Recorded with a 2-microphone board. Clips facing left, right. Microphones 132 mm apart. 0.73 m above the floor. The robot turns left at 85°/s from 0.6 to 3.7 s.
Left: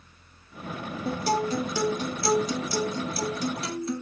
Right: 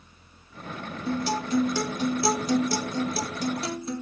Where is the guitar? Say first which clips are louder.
Left 1 dB; 75° left, 1.6 m; by 4.0 s 150° right, 1.6 m.